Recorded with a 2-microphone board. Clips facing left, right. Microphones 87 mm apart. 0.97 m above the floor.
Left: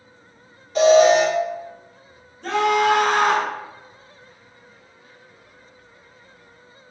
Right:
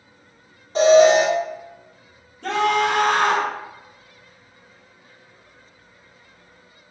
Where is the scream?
60° right (ahead or behind), 1.4 m.